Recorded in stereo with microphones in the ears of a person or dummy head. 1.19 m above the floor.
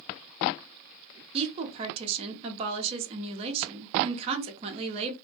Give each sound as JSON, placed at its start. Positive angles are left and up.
{"t": 1.3, "sound": "a woman speaking", "side_deg": -30, "distance_m": 0.7}